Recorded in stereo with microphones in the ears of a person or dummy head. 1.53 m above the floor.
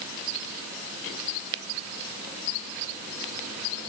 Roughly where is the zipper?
No zipper in this recording.